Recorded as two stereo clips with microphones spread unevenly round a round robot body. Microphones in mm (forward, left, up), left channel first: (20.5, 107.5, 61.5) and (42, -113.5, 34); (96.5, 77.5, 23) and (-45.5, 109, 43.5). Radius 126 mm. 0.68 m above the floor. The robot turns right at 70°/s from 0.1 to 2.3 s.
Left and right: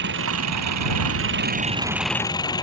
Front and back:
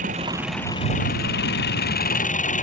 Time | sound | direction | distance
0.0 | an engine running | 130° right | ?